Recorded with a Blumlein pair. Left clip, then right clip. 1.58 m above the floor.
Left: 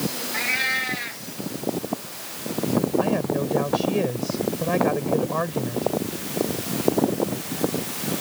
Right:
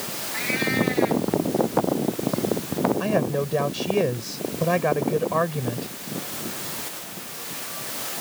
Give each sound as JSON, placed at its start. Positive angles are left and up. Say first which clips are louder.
{"t": 0.3, "sound": "a cat meowing", "louder": "left 1 dB", "azimuth_deg": 10}
{"t": 3.0, "sound": "a man speaking", "louder": "even", "azimuth_deg": -10}